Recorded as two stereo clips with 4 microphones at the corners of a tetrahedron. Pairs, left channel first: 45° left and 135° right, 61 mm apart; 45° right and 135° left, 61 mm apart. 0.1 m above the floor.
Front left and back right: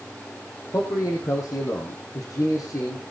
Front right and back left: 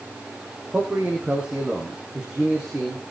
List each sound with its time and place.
0.7 s a man speaking: 65° left, 5 m; by 3.0 s 55° left, 6 m